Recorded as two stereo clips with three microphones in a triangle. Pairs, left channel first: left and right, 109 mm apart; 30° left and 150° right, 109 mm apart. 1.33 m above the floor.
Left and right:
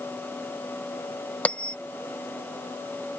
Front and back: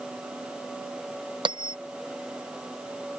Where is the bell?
170° left.